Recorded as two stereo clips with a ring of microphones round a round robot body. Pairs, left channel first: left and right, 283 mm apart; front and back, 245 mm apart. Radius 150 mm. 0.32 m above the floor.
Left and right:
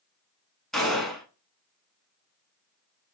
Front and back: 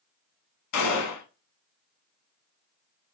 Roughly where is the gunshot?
Ahead.